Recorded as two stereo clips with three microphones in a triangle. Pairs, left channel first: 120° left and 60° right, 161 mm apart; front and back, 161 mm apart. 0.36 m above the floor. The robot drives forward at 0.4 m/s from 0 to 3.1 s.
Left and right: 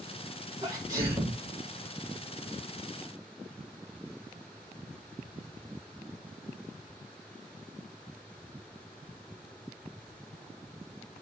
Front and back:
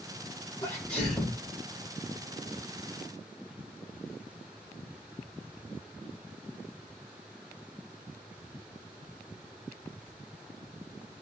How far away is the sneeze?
About 1.0 m.